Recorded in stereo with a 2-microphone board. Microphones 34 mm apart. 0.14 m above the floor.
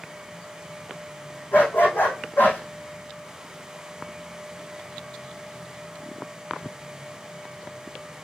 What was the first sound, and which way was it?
A dog barking, 75° left (ahead or behind).